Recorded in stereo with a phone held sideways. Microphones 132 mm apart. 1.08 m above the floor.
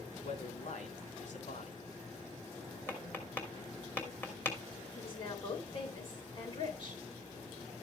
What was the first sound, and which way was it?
A man speaking, 65° left (ahead or behind).